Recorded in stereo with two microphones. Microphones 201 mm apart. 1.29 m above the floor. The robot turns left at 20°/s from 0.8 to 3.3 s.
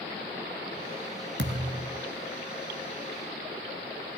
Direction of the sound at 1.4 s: 70° right (ahead or behind).